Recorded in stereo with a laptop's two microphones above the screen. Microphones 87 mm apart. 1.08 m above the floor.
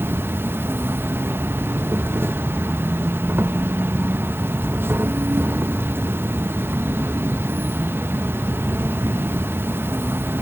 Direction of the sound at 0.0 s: 30° right (ahead or behind).